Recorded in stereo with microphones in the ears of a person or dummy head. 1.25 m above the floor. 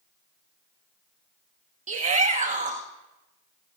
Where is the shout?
50° right (ahead or behind), 1.6 m.